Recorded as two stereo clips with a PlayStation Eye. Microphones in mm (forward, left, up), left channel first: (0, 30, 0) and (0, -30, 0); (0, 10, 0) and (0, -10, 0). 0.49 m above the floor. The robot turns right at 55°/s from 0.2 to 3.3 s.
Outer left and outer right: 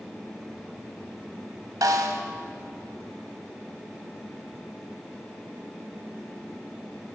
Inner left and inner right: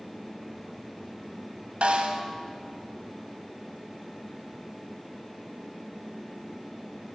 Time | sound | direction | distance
1.8 | a snare drum | 90° right | 0.9 m